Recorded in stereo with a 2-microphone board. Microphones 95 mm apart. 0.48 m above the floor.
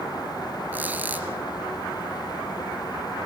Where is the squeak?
20° right (ahead or behind), 1.8 m.